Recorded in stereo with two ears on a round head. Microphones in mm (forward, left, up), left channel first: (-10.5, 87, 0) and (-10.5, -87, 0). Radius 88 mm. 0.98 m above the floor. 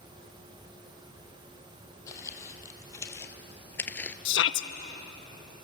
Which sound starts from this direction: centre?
Footsteps, at 2.1 s.